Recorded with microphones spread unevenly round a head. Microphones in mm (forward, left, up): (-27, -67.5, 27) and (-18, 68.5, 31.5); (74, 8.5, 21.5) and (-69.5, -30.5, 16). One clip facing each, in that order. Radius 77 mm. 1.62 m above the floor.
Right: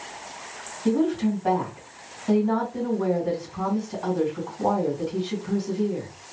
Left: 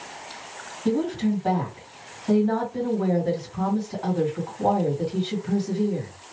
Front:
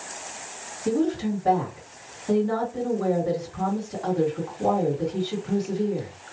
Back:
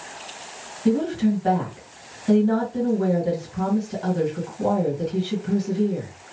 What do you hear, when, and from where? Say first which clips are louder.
0.8 s a woman speaking: right 1 dB, back 3 dB; straight behind, 2.0 m